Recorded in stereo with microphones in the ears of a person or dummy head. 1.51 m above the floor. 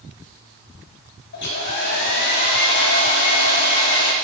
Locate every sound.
1.3 s a hair dryer: 60° left (ahead or behind), 2.5 m